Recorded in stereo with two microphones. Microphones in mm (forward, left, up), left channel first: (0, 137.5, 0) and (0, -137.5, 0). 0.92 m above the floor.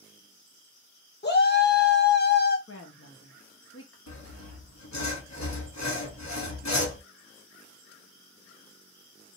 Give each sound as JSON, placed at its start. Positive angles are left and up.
{"t": 1.2, "sound": "a shout", "side_deg": 40, "distance_m": 0.8}
{"t": 2.7, "sound": "a woman speaking", "side_deg": 50, "distance_m": 0.8}
{"t": 4.1, "sound": "sawing", "side_deg": 75, "distance_m": 1.0}